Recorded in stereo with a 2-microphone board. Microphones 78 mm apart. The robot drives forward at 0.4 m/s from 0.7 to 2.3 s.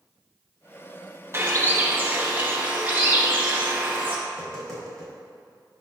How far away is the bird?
About 0.9 m.